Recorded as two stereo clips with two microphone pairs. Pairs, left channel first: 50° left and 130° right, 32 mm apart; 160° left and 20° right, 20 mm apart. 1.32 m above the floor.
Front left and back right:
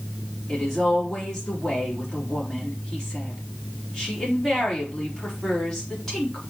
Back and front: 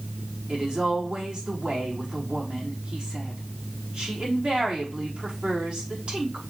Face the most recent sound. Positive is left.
turn(degrees=-25)